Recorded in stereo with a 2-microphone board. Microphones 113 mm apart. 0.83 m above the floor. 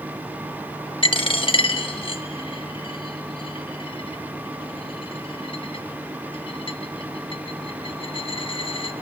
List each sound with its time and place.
1.0 s a dropped coin: 45° left (ahead or behind), 0.7 m